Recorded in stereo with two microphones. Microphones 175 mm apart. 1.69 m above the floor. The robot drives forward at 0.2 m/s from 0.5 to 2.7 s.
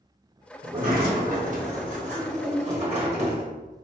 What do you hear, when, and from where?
0.6 s a sliding door: 55° right (ahead or behind), 1.0 m; by 3.5 s 40° right (ahead or behind), 1.2 m